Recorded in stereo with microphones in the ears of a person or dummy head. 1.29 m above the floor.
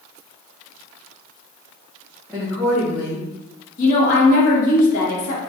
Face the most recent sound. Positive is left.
turn(degrees=50)  # may be behind; listen again after turning